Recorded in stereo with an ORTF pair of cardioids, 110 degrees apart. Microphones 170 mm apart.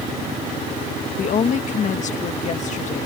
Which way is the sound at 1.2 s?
45° left.